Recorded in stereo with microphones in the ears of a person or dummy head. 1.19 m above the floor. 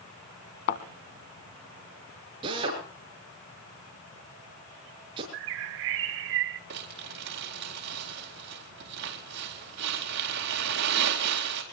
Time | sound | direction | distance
0.7 | a thud | 60° left (ahead or behind) | 2 m
2.4 | a drill | 30° right (ahead or behind) | 6.5 m
5.3 | a bird | 70° right (ahead or behind) | 1.1 m
6.7 | crumpling | 65° right (ahead or behind) | 4 m